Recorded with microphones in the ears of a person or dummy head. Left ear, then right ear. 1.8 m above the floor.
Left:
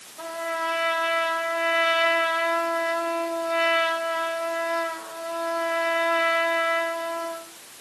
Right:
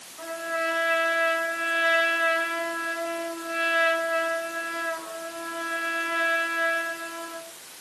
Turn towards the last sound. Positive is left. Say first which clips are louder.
# even
turn(degrees=25)  # may be behind; listen again after turning